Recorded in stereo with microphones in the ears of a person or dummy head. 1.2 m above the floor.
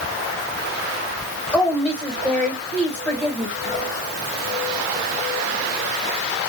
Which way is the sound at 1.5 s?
10° left (ahead or behind).